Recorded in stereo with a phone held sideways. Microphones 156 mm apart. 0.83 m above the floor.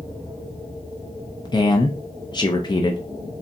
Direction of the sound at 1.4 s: 30° left (ahead or behind).